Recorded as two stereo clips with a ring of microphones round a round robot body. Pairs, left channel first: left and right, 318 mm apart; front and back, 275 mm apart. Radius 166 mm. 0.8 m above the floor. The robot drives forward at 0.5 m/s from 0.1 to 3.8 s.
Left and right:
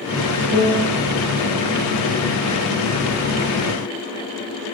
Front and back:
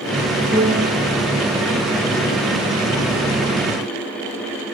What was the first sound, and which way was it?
A piano, 125° right.